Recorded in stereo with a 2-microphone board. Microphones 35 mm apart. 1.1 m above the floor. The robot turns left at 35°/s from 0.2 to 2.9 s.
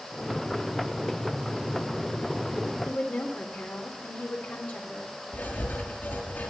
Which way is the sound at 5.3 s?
65° left (ahead or behind).